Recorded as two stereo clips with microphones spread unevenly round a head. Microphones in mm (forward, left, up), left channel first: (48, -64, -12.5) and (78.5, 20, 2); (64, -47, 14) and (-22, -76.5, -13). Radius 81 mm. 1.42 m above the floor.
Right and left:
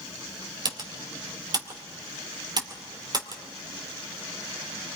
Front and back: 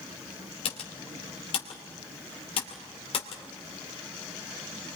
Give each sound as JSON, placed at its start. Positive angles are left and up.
{"t": 0.7, "sound": "typing on a keyboard", "azimuth_deg": 35, "distance_m": 2.5}